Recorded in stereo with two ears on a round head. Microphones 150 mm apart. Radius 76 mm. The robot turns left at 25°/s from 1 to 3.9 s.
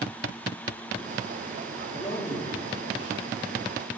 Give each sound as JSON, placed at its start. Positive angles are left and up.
{"t": 1.9, "sound": "a man speaking", "azimuth_deg": 60, "distance_m": 1.8}